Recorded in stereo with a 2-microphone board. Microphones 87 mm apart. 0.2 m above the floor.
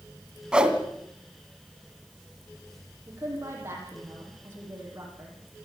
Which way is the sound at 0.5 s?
10° right (ahead or behind).